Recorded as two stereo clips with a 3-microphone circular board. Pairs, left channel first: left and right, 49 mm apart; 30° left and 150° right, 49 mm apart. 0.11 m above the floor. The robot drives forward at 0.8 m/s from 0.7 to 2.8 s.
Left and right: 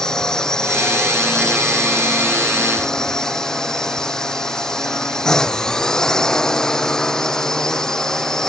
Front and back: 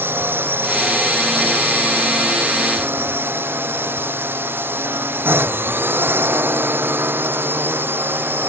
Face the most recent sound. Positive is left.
turn(degrees=165)